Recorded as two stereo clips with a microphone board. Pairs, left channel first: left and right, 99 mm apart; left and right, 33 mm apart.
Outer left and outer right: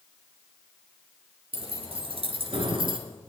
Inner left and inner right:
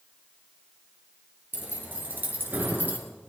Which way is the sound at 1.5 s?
65° right (ahead or behind).